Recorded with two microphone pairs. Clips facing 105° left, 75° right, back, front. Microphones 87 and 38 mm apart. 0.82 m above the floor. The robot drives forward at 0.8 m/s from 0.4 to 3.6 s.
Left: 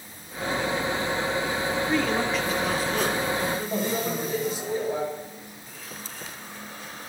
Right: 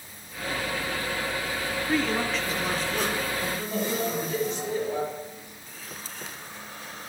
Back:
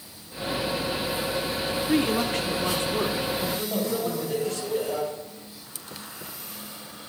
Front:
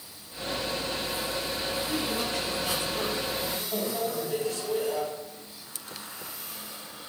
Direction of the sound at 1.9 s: 160° right.